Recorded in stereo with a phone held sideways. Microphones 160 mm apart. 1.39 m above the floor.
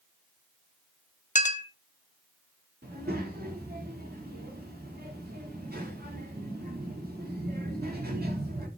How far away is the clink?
About 0.7 m.